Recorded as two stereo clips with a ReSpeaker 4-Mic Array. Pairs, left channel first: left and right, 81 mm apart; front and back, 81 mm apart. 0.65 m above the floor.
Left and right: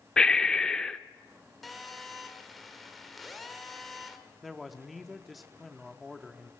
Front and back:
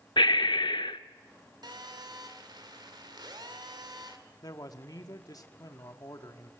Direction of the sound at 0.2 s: 10° left.